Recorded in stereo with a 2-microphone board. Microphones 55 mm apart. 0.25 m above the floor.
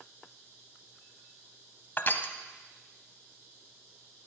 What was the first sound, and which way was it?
Crushing, 40° left (ahead or behind).